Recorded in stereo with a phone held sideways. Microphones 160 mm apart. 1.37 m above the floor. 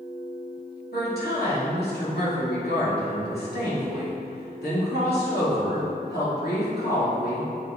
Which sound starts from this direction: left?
A woman speaking, at 0.9 s.